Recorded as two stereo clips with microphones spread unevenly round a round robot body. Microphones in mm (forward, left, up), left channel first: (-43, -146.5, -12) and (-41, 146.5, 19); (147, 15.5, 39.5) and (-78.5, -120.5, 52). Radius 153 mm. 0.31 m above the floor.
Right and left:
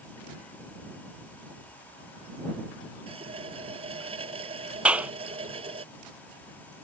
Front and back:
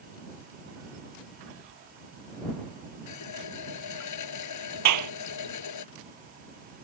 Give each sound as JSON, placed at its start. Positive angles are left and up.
{"t": 3.1, "sound": "a running tap", "azimuth_deg": 15}
{"t": 4.8, "sound": "a clap", "azimuth_deg": 175}